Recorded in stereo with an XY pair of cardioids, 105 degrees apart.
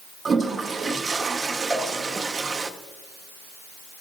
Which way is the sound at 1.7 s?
15° right.